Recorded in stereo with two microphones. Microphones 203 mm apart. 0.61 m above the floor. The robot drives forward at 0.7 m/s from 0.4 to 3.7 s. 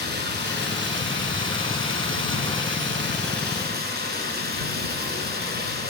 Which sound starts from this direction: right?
Running water, at 0.0 s.